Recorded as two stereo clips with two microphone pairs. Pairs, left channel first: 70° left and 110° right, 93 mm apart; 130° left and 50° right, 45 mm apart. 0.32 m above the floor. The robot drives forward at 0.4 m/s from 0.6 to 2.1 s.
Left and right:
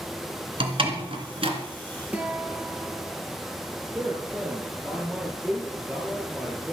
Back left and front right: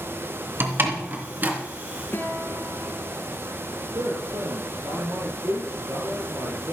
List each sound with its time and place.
0.6 s a door slam: 85° right, 2.5 m; by 1.6 s 95° right, 2.5 m
2.1 s a guitar: 175° left, 3 m
4.0 s a man speaking: 40° right, 5.5 m